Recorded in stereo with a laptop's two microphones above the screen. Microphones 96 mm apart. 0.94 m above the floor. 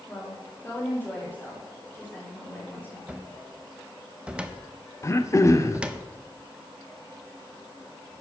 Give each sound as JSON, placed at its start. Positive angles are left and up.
{"t": 0.1, "sound": "a woman speaking", "side_deg": 20, "distance_m": 2.5}
{"t": 3.1, "sound": "a cupboard door", "side_deg": -10, "distance_m": 0.6}
{"t": 5.0, "sound": "throat clearing", "side_deg": 30, "distance_m": 0.8}